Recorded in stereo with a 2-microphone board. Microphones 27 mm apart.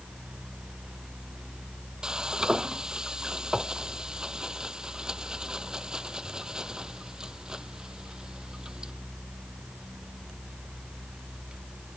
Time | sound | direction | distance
2.0 | frying | 25° right (ahead or behind) | ?